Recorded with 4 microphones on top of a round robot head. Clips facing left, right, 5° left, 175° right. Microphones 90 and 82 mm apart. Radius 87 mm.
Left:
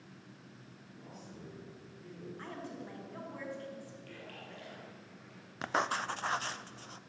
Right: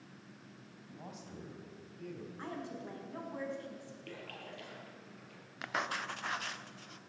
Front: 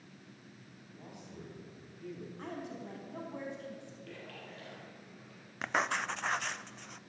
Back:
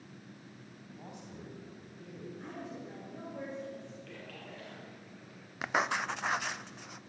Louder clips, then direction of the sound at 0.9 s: Right 2 dB, back 2 dB; 105° right.